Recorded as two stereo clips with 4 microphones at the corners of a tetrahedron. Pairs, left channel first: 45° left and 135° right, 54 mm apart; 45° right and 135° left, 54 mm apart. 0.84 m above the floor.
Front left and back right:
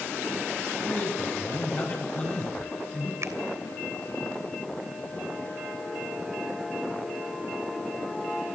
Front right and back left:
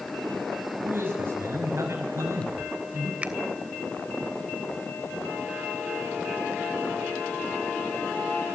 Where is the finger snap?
160° right, 2.5 m.